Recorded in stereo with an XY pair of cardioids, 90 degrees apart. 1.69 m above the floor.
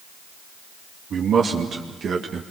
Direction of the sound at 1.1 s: 70° right.